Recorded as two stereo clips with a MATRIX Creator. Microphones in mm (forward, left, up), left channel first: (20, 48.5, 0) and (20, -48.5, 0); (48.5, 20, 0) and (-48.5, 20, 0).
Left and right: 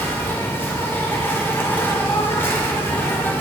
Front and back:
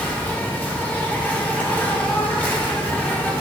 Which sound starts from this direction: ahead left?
An insect, at 0.0 s.